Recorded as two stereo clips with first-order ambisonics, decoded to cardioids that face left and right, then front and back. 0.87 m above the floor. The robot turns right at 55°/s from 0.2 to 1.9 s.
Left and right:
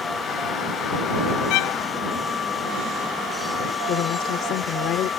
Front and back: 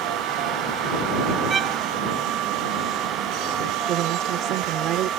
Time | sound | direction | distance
1.5 | a violin | 105° left | ?
3.9 | a woman speaking | 135° left | ?